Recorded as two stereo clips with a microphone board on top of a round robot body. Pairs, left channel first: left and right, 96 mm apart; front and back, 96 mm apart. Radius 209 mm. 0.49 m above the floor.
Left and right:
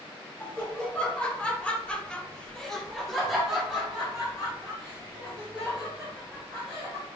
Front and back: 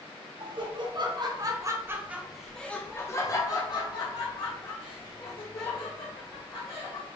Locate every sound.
0.4 s laughter: 165° left, 1.4 m; by 7.1 s 5° right, 2.5 m